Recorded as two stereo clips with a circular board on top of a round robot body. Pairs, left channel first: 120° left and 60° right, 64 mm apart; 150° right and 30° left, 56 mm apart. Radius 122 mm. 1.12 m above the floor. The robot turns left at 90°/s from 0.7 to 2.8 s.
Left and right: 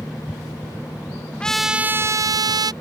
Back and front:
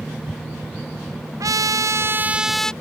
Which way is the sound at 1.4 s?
45° left.